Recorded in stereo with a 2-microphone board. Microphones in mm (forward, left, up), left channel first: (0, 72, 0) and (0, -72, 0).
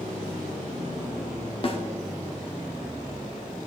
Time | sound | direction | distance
1.6 | a snare drum | 40° left (ahead or behind) | 1.0 m